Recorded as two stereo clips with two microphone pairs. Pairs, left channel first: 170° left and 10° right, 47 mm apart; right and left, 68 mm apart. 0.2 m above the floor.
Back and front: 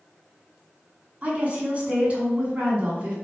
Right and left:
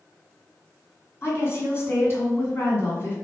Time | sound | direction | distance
1.2 | a woman speaking | 55° right | 1.9 m